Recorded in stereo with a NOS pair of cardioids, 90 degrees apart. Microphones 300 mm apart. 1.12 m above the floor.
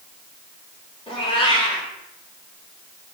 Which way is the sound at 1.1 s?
20° left.